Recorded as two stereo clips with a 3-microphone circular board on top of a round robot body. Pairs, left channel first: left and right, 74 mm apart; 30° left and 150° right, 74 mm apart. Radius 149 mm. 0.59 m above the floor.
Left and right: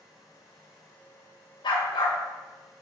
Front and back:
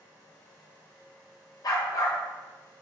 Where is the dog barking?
70° left, 1.3 m.